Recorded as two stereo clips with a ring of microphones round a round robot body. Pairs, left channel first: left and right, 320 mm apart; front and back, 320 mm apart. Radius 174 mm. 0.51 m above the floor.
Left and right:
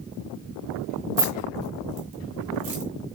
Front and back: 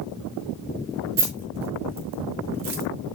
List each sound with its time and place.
1.2 s keys jangling: 140° right, 4 m